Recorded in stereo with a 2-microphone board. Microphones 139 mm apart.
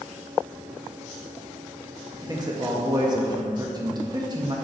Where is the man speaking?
30° right (ahead or behind), 1.3 m.